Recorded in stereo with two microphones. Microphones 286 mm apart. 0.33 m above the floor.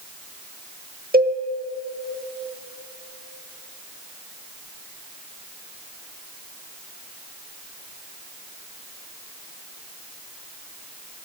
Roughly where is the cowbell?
Right.